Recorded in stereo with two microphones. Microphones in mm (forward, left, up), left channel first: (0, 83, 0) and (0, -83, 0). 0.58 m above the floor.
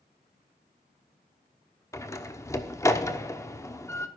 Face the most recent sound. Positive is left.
turn(degrees=15)  # may be behind; listen again after turning